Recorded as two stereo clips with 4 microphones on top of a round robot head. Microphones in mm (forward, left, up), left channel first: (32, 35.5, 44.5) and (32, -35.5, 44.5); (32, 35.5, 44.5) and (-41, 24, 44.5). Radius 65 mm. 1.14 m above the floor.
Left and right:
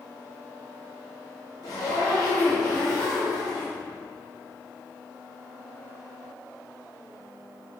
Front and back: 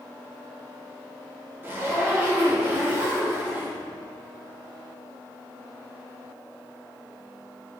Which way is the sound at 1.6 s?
130° left.